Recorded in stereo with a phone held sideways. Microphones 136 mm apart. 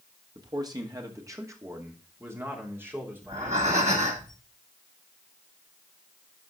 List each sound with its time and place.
0.3 s a man speaking: 30° right (ahead or behind), 1.8 m; by 4.2 s 10° right (ahead or behind), 3.5 m
3.2 s breathing: 60° right (ahead or behind), 2.5 m